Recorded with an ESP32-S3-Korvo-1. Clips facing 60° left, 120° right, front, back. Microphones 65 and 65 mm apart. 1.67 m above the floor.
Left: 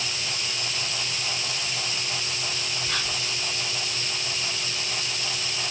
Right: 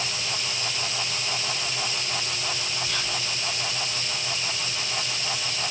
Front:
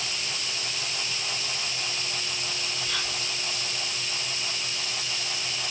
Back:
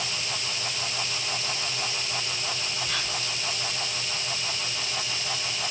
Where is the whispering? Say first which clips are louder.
Even, back 1 dB; 110° left, 4 m.